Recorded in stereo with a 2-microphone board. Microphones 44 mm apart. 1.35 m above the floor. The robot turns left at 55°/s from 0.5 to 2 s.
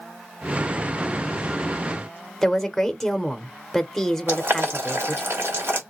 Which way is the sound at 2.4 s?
5° left (ahead or behind).